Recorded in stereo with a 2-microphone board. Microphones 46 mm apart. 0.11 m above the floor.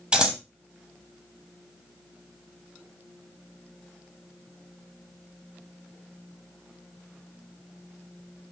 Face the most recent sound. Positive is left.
turn(degrees=-20)  # may be behind; listen again after turning